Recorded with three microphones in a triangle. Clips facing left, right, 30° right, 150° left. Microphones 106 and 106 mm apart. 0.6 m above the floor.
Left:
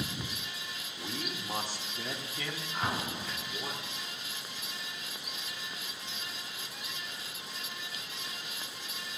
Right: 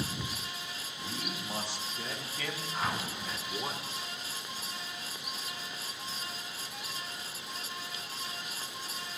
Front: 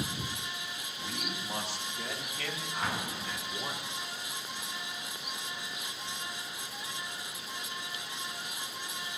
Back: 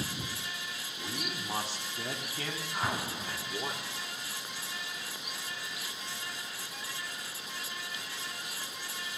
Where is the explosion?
90° left, 0.6 m.